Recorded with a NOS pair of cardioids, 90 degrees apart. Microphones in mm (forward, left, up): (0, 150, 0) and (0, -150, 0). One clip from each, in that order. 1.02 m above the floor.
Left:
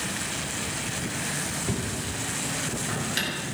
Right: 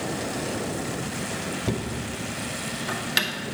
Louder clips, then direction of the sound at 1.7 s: Right 1 dB; 45° right.